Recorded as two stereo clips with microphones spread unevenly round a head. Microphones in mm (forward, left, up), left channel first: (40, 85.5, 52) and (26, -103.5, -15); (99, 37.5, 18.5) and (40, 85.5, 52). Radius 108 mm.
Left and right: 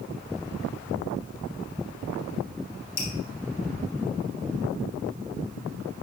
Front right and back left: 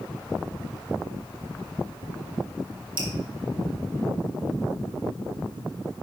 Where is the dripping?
135° left, 1.5 m.